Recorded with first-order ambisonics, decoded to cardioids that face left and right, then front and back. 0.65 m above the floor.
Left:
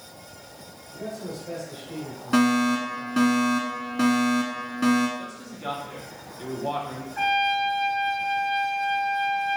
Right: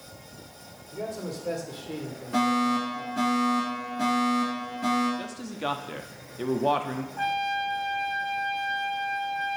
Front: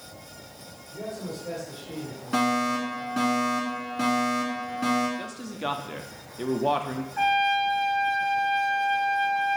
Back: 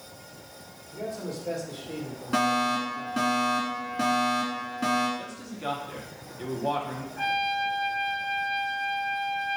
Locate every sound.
0.9 s a man speaking: 95° right, 2 m; by 3.2 s 135° right, 1.9 m
2.3 s a fire alarm: 90° left, 1.9 m
5.2 s a man speaking: 55° right, 0.7 m
7.2 s a trumpet: 60° left, 3 m